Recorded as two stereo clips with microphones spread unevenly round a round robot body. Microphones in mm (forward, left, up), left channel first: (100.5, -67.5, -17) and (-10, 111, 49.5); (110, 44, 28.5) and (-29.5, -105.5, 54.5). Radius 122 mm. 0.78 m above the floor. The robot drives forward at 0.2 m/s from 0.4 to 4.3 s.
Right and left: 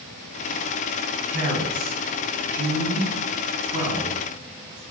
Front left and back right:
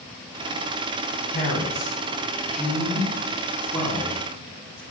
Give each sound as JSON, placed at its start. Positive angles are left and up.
{"t": 1.3, "sound": "a man speaking", "azimuth_deg": 120, "distance_m": 1.6}